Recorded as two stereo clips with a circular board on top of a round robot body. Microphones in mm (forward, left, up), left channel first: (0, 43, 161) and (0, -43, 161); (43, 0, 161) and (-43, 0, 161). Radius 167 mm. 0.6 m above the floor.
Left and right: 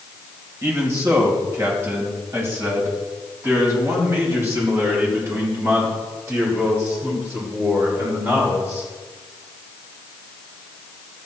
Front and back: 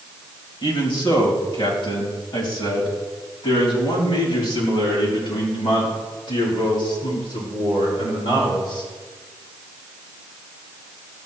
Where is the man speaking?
30° right, 3 m.